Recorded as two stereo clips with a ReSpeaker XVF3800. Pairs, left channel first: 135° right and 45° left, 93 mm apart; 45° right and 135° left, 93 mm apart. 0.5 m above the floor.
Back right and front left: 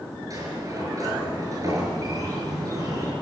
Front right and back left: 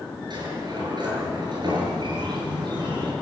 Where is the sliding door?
100° left, 6.5 m.